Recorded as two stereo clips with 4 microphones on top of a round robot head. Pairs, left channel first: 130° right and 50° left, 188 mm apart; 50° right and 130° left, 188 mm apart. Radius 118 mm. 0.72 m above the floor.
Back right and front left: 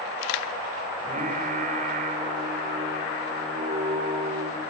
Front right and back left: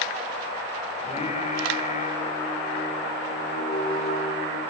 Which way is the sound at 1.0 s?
5° left.